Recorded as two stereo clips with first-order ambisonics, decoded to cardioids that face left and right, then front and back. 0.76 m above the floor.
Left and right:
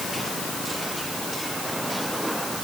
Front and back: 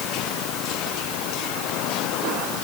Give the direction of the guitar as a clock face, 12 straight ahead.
No guitar in this recording.